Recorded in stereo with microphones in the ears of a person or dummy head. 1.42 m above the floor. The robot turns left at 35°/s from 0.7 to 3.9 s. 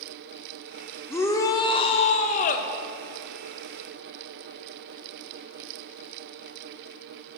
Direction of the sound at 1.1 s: 160° left.